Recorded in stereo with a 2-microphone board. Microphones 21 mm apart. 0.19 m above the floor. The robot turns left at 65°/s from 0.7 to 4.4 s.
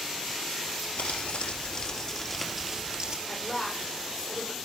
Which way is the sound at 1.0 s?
90° left.